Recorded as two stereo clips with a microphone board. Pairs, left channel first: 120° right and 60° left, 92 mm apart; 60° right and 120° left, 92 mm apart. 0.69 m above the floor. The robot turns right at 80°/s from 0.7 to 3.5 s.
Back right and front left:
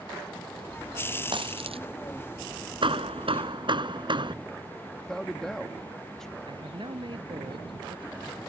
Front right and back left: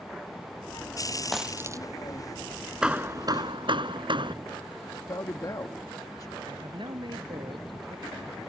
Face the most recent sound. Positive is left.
turn(degrees=90)